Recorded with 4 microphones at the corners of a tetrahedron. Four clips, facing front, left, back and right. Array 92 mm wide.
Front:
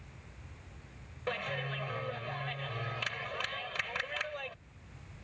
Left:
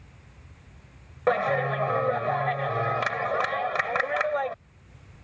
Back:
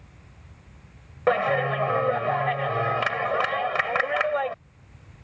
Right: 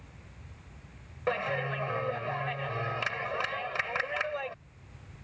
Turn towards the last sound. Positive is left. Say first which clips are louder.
# left 7 dB, back 15 dB
turn(degrees=150)